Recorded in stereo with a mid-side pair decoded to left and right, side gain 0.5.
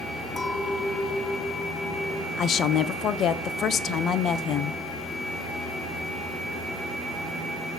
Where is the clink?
20° left, 7.5 m.